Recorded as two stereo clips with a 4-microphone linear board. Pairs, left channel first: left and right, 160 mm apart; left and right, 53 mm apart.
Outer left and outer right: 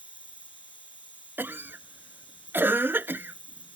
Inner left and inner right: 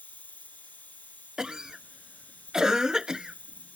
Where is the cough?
15° right (ahead or behind).